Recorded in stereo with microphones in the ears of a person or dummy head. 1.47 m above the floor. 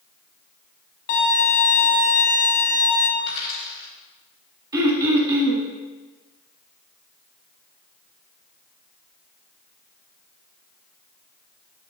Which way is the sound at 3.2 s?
35° left (ahead or behind).